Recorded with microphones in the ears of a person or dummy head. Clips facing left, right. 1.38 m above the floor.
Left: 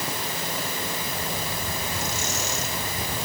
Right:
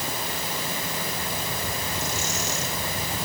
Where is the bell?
I don't hear a bell.